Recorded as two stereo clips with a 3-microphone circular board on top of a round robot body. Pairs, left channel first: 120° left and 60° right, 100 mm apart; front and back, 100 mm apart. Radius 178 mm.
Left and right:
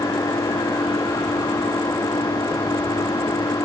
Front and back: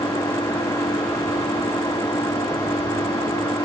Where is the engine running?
60° left.